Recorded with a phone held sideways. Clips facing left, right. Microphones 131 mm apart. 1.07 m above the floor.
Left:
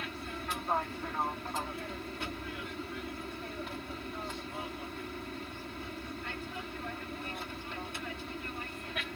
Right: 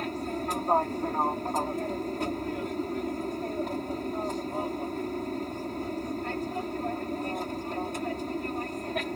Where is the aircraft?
40° right (ahead or behind).